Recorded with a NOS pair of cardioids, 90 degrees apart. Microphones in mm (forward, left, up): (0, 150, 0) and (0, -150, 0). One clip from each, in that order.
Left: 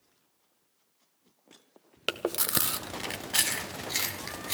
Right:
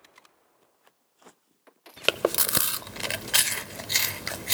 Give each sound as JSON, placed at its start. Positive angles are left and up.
{"t": 2.1, "sound": "chewing", "azimuth_deg": -30, "distance_m": 0.5}